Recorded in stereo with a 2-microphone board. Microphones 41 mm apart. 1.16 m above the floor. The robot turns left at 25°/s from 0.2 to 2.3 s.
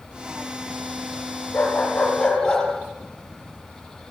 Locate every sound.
1.5 s a dog barking: 35° left (ahead or behind), 7 m; by 2.7 s 15° left (ahead or behind), 7 m